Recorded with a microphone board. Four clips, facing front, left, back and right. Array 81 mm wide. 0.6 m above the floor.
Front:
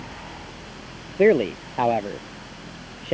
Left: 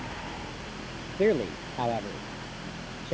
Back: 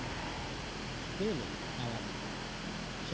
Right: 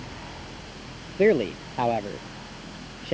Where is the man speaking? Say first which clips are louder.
Right 4 dB, front 19 dB; 15° right.